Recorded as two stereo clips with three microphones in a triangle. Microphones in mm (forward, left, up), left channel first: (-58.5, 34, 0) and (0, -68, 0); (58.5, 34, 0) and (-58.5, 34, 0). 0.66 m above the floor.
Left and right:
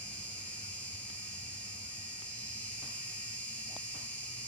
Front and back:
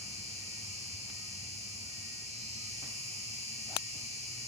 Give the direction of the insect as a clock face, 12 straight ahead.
5 o'clock.